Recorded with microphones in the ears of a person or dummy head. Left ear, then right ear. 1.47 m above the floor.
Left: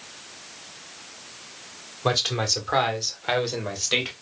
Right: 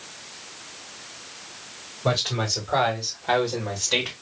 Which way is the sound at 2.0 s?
80° left.